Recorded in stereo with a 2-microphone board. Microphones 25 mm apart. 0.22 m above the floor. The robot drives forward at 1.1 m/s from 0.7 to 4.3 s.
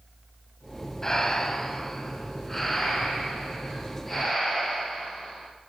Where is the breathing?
20° left (ahead or behind), 1.1 m; by 5.5 s 5° left (ahead or behind), 4 m.